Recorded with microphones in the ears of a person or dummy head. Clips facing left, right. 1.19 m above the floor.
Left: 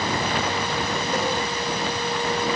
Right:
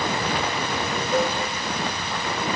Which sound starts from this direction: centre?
A cowbell, at 1.1 s.